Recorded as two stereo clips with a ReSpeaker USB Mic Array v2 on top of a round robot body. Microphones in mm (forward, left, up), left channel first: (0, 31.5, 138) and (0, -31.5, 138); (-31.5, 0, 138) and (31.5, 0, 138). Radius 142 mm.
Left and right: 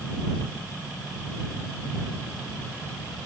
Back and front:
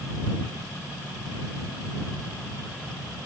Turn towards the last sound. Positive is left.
No sound to turn to.